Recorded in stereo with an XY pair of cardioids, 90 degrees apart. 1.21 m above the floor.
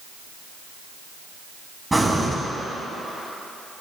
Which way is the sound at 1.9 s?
20° right.